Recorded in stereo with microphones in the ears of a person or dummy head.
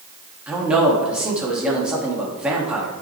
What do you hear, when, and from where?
0.5 s a man speaking: 5° right (ahead or behind), 2.5 m